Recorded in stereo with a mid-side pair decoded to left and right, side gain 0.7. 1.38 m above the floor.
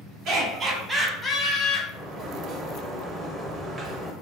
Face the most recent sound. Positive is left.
turn(degrees=-30)